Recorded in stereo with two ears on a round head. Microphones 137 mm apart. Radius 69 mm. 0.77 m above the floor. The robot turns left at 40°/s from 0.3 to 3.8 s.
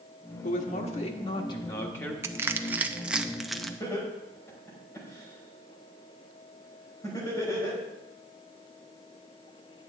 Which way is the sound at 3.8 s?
20° left (ahead or behind).